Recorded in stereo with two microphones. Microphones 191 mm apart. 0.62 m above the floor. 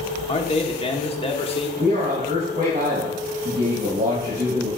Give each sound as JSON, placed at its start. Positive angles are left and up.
{"t": 0.3, "sound": "a man speaking", "side_deg": 30, "distance_m": 1.1}
{"t": 1.8, "sound": "a man speaking", "side_deg": -45, "distance_m": 3.5}